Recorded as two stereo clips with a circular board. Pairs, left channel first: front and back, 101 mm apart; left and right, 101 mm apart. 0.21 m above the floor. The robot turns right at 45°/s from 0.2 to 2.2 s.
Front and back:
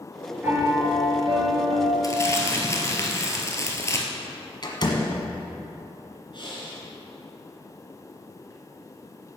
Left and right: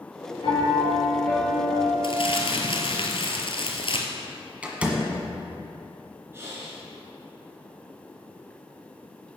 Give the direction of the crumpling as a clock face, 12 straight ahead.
10 o'clock.